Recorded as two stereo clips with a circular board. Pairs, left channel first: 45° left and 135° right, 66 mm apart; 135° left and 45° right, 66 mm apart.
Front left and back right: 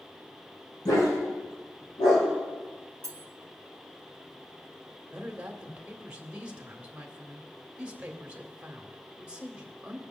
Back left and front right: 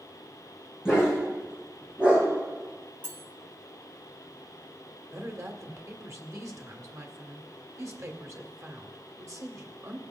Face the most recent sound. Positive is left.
turn(degrees=-65)